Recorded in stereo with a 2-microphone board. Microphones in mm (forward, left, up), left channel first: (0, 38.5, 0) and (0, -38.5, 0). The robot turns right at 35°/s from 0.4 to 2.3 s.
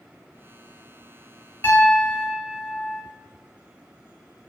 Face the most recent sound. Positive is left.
turn(degrees=5)  # may be behind; listen again after turning